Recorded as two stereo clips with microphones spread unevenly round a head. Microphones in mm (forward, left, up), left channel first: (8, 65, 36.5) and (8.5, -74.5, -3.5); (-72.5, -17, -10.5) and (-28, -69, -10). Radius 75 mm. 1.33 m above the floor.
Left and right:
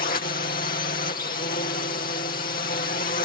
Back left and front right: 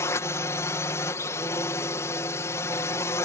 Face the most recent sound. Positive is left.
turn(degrees=90)